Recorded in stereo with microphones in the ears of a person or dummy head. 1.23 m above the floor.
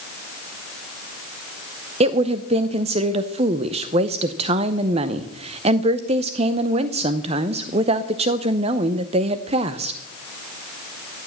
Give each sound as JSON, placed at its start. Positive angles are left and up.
{"t": 2.0, "sound": "a woman speaking", "side_deg": -30, "distance_m": 0.8}